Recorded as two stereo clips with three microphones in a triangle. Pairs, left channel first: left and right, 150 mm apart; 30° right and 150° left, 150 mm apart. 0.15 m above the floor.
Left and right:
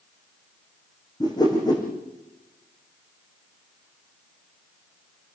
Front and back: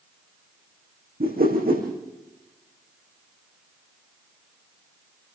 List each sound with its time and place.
1.2 s a whoosh: 150° left, 8 m